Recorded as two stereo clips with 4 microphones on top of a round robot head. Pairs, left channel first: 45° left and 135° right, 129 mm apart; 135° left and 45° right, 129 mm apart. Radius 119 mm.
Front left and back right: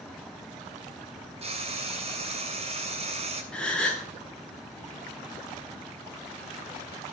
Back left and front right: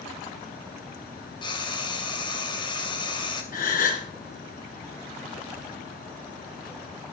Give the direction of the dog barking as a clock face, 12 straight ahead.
No dog barking in this recording.